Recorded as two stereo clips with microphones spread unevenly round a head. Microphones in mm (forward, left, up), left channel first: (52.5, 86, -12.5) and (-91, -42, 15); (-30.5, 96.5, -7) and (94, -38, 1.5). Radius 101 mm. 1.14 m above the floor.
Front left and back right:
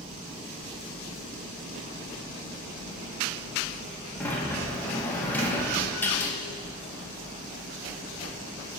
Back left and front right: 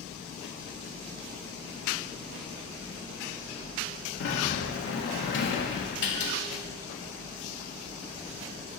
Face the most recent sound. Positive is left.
turn(degrees=120)